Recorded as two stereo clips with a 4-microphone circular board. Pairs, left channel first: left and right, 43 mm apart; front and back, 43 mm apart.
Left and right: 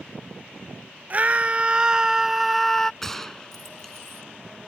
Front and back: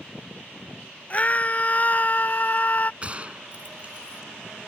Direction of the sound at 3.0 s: 160° left.